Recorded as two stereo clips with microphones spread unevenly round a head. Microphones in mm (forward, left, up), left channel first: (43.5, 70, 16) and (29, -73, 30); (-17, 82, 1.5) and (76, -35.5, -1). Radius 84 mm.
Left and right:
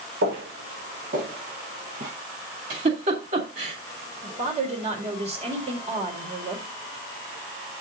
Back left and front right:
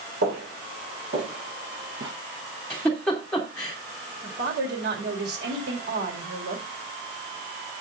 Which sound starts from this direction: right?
Footsteps, at 0.2 s.